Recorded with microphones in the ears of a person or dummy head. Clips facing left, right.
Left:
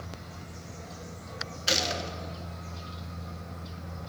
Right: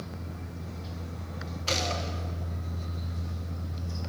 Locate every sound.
1.7 s a gunshot: 10° left (ahead or behind), 1.0 m